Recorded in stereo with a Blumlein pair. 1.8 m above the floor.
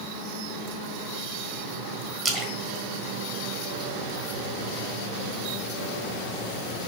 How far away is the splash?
About 1.6 m.